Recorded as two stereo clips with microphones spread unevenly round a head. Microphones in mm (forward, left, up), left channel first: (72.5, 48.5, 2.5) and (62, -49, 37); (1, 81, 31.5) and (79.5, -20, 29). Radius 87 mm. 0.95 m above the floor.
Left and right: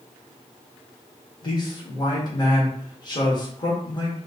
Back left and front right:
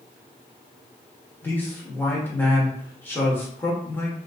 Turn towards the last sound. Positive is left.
turn(degrees=55)